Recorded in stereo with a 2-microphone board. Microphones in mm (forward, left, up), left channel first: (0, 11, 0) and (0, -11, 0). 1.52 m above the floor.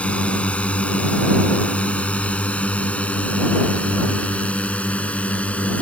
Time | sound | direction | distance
0.0 | a drone | 65° left (ahead or behind) | ?